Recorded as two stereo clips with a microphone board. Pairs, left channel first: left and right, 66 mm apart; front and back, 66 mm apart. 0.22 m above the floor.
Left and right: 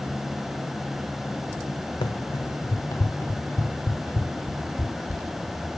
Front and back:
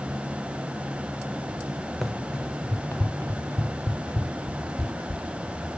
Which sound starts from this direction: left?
Running footsteps, at 2.0 s.